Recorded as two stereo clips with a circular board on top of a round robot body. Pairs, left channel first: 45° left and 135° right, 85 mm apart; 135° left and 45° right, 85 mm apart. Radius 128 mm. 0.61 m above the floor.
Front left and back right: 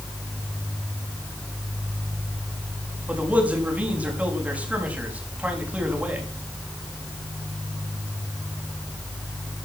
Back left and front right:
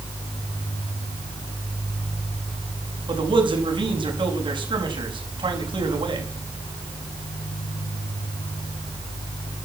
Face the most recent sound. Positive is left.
turn(degrees=-60)